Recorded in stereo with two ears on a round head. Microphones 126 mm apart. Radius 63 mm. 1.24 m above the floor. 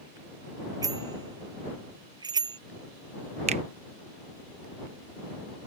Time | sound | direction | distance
0.8 | a bicycle bell | 30° right (ahead or behind) | ?
3.5 | a finger snap | 45° right (ahead or behind) | ?